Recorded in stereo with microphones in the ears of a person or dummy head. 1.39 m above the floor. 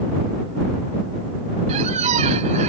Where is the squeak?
35° right (ahead or behind).